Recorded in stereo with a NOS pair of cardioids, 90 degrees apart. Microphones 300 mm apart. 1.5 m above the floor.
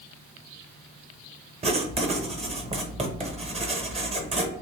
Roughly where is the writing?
Ahead.